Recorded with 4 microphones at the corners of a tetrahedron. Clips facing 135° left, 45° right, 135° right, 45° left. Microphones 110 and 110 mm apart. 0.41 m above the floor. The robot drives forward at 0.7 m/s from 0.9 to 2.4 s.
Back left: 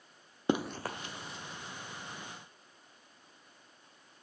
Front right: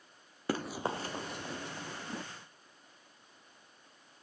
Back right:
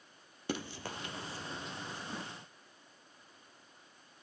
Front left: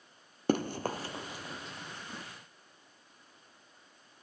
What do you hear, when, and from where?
0.5 s running footsteps: 70° left, 0.6 m; by 2.2 s 60° right, 1.4 m